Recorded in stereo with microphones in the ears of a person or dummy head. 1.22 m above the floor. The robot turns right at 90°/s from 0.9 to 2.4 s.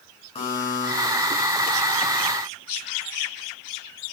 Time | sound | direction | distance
0.3 | a buzzer | 25° left (ahead or behind) | 5.5 m